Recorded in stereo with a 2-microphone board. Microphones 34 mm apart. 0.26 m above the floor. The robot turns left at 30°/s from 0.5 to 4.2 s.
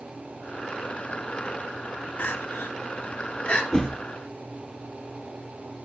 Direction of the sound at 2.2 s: 80° left.